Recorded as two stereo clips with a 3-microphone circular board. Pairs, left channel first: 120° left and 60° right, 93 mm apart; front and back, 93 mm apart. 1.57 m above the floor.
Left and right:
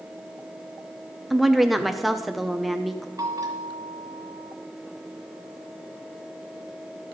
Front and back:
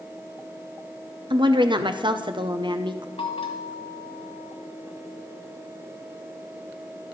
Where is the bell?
10° right, 1.6 m.